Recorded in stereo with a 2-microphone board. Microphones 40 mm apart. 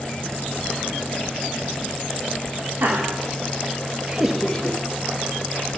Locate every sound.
2.8 s laughter: 70° right (ahead or behind), 1.9 m; by 5.7 s 65° left (ahead or behind), 1.7 m